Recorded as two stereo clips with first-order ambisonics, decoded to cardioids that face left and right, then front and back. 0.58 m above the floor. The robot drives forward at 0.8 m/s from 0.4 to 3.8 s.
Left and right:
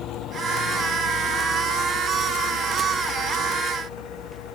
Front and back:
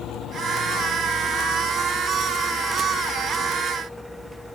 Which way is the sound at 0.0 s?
45° left.